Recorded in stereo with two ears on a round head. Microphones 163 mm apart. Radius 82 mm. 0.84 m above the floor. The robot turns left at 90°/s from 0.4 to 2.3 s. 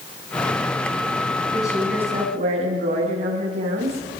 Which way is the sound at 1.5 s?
30° left.